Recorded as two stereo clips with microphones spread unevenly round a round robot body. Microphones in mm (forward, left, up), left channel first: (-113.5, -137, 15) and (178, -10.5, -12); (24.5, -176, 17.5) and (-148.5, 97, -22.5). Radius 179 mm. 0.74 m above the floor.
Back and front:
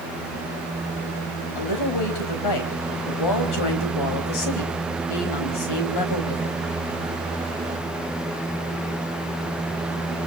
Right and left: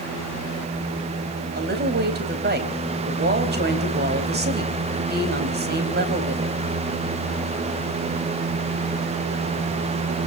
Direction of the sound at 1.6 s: Straight behind.